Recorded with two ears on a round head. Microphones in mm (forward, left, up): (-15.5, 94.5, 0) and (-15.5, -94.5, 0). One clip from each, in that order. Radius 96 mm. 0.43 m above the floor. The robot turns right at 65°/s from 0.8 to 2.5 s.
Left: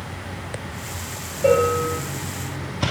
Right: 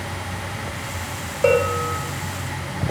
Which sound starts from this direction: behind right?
A bell, at 1.4 s.